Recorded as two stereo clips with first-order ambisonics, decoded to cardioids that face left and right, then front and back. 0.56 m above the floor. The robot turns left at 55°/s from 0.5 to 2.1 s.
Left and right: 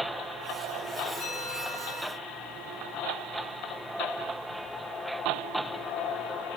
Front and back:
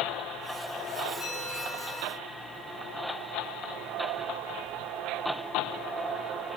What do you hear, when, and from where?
1.2 s a bell: 85° left, 4.5 m; by 2.2 s 35° left, 4.5 m